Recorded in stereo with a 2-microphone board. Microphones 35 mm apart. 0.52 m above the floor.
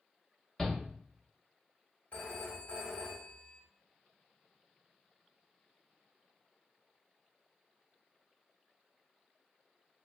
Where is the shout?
5° left (ahead or behind), 0.8 m.